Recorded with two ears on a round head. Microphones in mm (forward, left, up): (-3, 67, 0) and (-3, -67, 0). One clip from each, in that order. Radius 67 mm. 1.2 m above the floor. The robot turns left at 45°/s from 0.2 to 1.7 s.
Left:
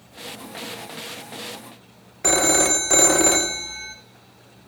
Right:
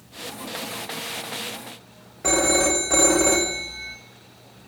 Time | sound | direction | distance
2.2 | a phone ringing | 50° left (ahead or behind) | 0.7 m